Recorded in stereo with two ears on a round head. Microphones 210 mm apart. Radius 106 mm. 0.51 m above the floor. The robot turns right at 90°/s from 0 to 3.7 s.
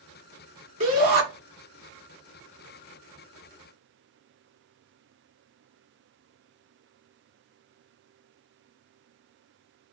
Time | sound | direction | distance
0.8 | a shout | 130° right | 1.8 m